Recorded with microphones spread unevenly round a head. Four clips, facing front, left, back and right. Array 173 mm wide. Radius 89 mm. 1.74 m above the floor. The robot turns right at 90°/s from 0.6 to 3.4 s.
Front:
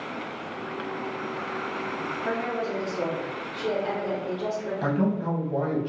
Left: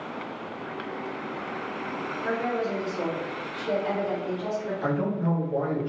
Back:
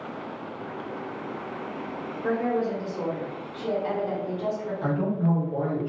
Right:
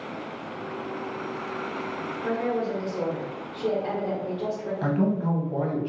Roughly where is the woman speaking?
Behind.